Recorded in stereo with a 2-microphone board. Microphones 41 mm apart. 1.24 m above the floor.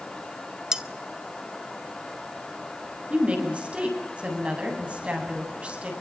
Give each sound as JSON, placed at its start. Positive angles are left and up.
{"t": 0.7, "sound": "cutlery clinking", "side_deg": -15, "distance_m": 1.1}
{"t": 3.1, "sound": "a woman speaking", "side_deg": -30, "distance_m": 8.5}